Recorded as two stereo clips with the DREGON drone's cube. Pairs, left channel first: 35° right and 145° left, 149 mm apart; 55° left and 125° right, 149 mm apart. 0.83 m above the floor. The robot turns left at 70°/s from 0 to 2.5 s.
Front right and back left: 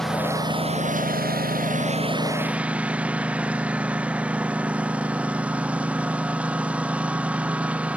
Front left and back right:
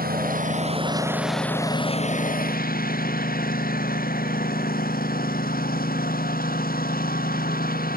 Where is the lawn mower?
120° right; by 8.0 s 65° left.